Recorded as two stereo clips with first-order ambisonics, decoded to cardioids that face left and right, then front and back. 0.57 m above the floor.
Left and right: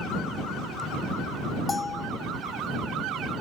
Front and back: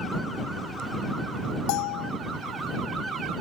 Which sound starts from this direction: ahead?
A bell, at 1.7 s.